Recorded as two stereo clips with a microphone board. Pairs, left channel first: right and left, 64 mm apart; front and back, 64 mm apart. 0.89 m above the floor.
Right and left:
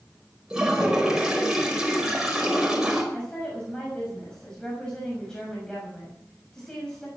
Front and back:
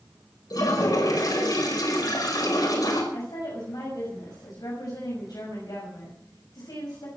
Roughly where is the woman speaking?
Ahead.